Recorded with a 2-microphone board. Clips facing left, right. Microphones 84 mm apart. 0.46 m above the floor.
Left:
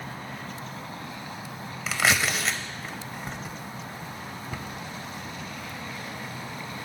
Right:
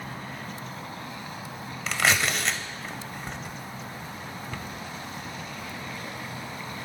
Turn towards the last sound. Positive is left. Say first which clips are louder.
# even
turn(degrees=10)  # may be behind; listen again after turning